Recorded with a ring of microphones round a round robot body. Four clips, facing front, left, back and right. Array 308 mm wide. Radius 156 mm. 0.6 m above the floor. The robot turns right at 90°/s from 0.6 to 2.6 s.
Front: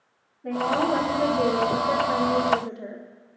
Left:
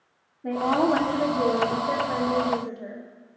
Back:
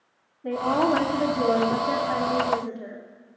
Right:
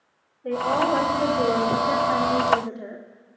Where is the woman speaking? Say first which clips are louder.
Even, back 1 dB; 85° left, 1.8 m; by 3.1 s 95° right, 1.8 m.